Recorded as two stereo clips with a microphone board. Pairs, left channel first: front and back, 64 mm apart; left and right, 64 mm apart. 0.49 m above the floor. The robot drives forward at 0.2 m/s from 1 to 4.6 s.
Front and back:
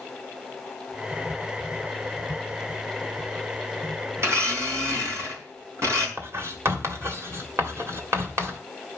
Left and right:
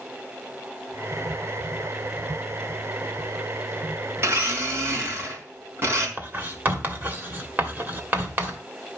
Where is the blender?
135° right, 4 m; by 6.1 s 140° right, 4 m.